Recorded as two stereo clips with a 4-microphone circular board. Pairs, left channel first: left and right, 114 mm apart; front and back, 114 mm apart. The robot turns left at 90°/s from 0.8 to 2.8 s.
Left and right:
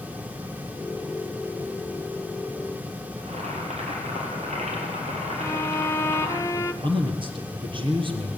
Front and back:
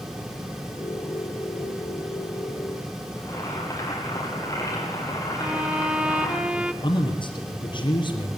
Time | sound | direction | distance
3.2 | boiling | 65° right | 5 m
5.4 | a violin | 115° left | 1.0 m
6.8 | a man speaking | 45° right | 4 m